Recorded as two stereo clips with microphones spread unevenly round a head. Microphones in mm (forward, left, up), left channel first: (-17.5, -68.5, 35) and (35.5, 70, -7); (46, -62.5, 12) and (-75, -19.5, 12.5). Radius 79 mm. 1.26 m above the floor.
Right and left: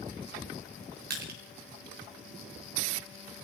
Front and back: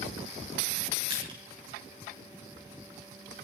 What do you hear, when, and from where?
1.1 s crushing: 100° left, 6 m